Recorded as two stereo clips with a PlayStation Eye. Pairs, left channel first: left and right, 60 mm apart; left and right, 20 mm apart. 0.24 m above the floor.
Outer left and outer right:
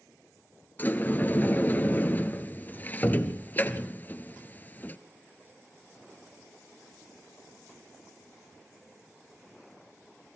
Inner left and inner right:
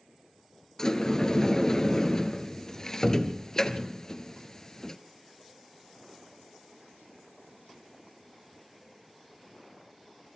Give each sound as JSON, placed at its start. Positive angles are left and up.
{"t": 0.8, "sound": "a sliding door", "side_deg": 30, "distance_m": 0.9}